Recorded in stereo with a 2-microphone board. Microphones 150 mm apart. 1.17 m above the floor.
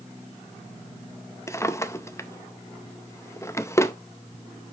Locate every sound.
1.5 s a drawer: 20° left (ahead or behind), 0.5 m